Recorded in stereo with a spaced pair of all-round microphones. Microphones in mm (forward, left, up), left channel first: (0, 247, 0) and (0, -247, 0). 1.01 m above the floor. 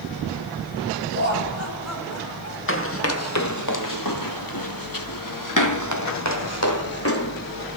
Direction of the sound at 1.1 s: 25° right (ahead or behind).